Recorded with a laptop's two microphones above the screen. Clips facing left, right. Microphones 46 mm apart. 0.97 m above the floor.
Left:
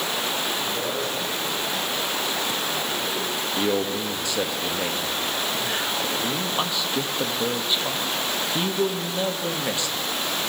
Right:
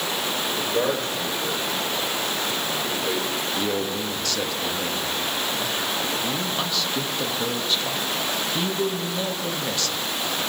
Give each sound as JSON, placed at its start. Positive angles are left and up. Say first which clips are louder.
{"t": 0.6, "sound": "a man speaking", "louder": "right 3 dB", "side_deg": -45, "distance_m": 4.0}
{"t": 3.6, "sound": "a man speaking", "louder": "left 4 dB", "side_deg": 15, "distance_m": 1.4}